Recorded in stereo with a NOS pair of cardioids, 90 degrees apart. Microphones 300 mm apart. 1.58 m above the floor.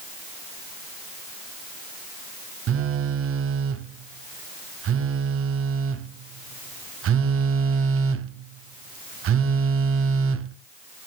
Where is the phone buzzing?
45° right, 0.7 m.